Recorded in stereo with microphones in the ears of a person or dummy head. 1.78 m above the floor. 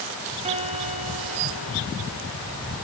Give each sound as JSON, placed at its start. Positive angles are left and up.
{"t": 0.5, "sound": "a guitar", "side_deg": -30, "distance_m": 0.5}